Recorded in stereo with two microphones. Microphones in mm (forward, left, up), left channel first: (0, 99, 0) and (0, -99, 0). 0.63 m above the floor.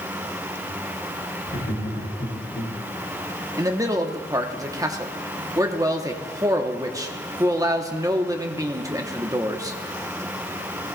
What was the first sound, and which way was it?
Laughter, 65° left (ahead or behind).